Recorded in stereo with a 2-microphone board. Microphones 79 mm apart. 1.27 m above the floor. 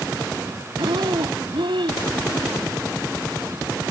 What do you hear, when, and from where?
0.8 s breathing: 85° right